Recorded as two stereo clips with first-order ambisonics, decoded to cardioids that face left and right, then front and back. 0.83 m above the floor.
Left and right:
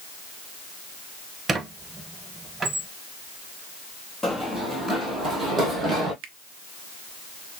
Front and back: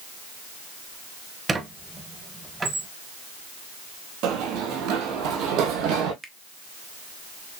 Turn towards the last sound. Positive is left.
turn(degrees=-100)